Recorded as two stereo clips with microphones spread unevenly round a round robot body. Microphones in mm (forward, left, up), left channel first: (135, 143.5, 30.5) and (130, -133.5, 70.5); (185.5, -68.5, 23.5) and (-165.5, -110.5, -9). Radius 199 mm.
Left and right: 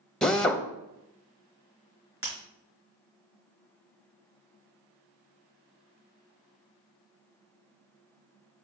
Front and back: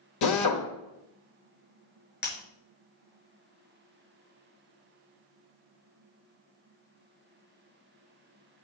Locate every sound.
0.2 s a drill: 10° left, 1.3 m
2.2 s breaking glass: 55° right, 3.5 m